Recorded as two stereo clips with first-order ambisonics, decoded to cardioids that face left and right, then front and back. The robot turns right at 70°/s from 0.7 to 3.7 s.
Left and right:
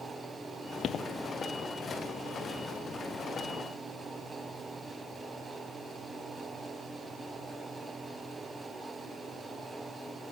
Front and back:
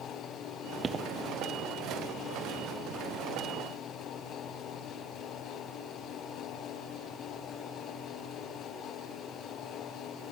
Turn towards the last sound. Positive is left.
turn(degrees=-40)